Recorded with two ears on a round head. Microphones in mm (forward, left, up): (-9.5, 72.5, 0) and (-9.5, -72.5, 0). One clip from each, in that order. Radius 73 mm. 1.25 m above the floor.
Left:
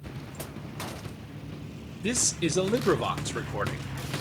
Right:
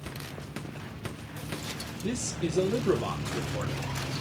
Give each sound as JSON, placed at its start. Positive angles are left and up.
{"t": 2.0, "sound": "a man speaking", "side_deg": 55, "distance_m": 0.6}